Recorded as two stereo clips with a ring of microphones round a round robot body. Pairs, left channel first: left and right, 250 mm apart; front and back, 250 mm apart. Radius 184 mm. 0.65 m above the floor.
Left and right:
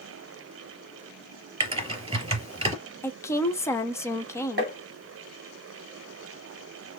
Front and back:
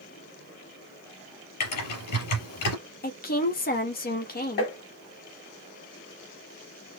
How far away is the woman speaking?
About 1.3 m.